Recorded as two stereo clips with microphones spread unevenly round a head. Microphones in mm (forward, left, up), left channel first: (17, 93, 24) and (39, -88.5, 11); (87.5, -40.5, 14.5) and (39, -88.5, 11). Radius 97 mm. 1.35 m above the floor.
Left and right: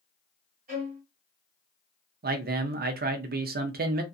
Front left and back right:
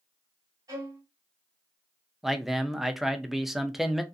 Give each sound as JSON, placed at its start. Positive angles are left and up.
{"t": 0.7, "sound": "a violin", "azimuth_deg": -125, "distance_m": 1.7}
{"t": 2.2, "sound": "a man speaking", "azimuth_deg": -50, "distance_m": 0.6}